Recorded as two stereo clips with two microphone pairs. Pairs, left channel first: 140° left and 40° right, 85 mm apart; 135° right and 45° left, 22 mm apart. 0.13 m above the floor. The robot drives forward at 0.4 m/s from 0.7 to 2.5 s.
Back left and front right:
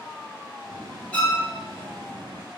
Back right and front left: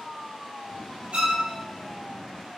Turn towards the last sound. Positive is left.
turn(degrees=110)